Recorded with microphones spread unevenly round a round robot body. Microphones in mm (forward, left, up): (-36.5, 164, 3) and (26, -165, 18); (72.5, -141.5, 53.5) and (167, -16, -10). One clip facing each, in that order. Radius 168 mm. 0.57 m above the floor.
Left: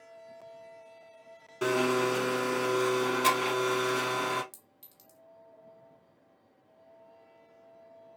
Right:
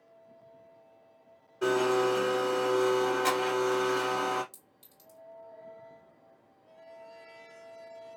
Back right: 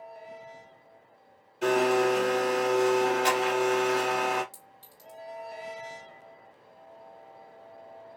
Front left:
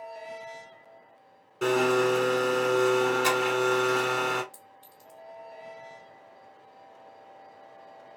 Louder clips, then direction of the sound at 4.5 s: Right 1 dB, front left 2 dB; 170° left.